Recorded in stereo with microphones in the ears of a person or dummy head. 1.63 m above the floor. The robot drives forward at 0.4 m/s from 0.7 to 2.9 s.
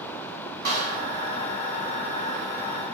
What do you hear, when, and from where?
0.7 s a snare drum: 55° right (ahead or behind), 1.7 m